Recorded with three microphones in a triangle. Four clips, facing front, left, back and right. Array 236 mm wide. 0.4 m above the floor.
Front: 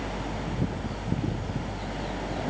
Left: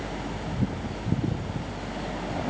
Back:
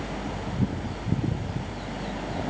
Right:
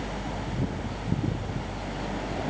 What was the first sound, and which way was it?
Only background noise.